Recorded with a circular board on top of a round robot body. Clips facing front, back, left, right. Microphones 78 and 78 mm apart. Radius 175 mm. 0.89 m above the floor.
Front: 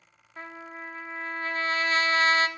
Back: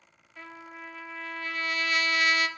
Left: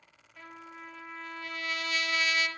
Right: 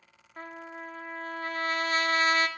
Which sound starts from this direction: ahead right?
A trumpet, at 0.4 s.